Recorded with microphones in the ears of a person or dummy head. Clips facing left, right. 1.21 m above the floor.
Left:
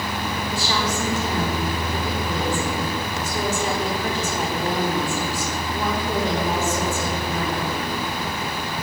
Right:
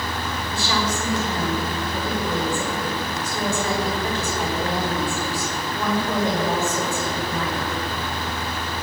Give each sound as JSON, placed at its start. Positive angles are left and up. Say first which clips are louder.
{"t": 0.5, "sound": "a woman speaking", "louder": "right 2 dB", "side_deg": 40, "distance_m": 4.0}